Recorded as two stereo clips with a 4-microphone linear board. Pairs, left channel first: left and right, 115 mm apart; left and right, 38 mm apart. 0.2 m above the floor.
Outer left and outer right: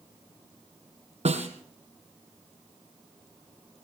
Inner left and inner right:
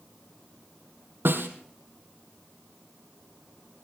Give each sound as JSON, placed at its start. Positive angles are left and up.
{"t": 1.2, "sound": "a snare drum", "side_deg": -80, "distance_m": 2.0}